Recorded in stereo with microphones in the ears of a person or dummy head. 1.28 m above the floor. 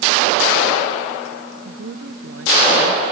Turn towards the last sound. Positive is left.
turn(degrees=-80)